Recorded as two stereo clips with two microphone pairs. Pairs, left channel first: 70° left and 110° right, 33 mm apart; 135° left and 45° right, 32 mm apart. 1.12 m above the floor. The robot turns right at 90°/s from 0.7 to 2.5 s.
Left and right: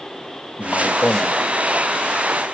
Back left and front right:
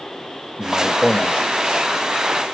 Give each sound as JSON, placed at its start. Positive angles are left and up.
{"t": 0.6, "sound": "a man speaking", "azimuth_deg": 45, "distance_m": 0.5}